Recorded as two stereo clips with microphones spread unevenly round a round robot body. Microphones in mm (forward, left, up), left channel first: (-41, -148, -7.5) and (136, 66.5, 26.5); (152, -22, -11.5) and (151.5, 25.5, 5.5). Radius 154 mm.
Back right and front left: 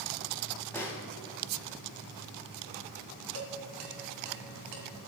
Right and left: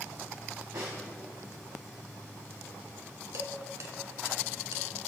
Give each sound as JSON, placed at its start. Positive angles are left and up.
{"t": 0.7, "sound": "a snare drum", "azimuth_deg": 150, "distance_m": 1.8}
{"t": 3.3, "sound": "dishes clattering", "azimuth_deg": 90, "distance_m": 3.0}